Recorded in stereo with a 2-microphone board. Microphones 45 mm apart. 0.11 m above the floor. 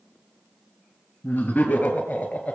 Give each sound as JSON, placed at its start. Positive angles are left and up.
{"t": 1.2, "sound": "laughter", "side_deg": 40, "distance_m": 2.5}